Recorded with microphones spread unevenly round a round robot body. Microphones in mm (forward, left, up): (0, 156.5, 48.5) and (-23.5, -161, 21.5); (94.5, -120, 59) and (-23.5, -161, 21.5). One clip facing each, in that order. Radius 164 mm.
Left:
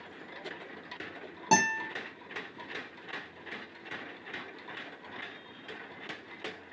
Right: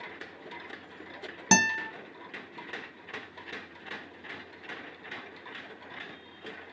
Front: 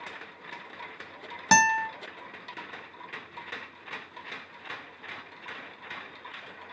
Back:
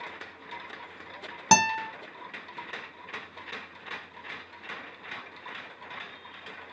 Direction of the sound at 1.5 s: 110° right.